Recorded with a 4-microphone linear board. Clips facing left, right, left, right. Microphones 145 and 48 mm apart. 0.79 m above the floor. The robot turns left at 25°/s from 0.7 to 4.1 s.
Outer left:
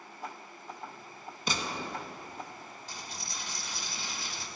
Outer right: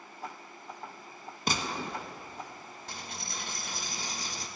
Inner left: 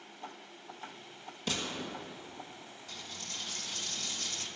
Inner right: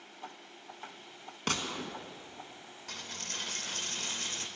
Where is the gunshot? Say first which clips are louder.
Outer right 2 dB, inner right 2 dB; 55° right (ahead or behind), 1.2 m; by 2.0 s 60° right (ahead or behind), 1.2 m.